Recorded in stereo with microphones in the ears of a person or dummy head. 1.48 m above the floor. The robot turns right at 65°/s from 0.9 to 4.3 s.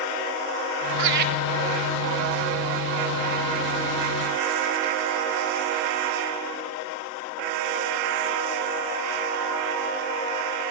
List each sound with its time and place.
1.0 s laughter: 75° right (ahead or behind), 1.3 m; by 1.3 s 55° right (ahead or behind), 1.3 m